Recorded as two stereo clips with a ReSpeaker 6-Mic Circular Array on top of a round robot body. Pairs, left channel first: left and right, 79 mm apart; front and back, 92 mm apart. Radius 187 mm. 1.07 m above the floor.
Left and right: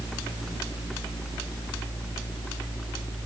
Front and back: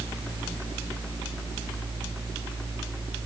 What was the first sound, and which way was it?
Only background noise.